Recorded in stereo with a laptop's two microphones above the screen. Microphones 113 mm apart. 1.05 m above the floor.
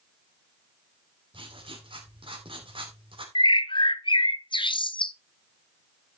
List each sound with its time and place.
1.3 s writing: 55° right (ahead or behind), 2.5 m
3.4 s a bird: 50° left (ahead or behind), 0.6 m